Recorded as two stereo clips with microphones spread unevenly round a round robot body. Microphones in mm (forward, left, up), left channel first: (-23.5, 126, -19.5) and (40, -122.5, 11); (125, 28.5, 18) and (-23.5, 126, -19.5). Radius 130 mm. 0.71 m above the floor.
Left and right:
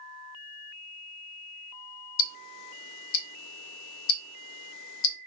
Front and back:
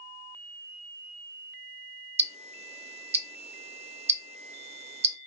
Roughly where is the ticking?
Left.